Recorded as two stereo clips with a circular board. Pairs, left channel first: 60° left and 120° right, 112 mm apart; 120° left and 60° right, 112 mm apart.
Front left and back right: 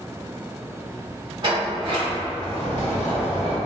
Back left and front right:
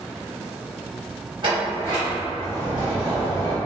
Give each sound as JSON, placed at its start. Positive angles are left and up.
{"t": 1.4, "sound": "a sliding door", "azimuth_deg": -85, "distance_m": 1.5}